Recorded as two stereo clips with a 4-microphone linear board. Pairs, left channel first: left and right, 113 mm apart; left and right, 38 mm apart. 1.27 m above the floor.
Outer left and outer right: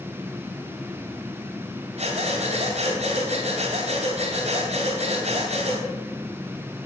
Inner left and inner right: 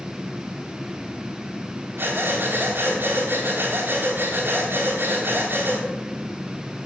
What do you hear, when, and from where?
2.0 s breathing: 70° right (ahead or behind), 3 m